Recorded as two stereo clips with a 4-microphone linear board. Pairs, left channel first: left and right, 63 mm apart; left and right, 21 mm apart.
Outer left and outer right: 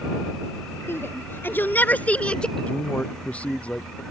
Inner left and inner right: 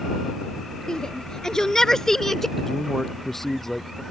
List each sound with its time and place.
0.9 s a shout: 40° left (ahead or behind); by 2.5 s 15° left (ahead or behind)
2.6 s a man speaking: 20° left (ahead or behind)